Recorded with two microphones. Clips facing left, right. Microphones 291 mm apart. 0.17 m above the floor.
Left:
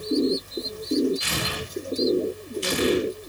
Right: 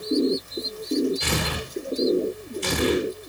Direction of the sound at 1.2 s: 60° right (ahead or behind).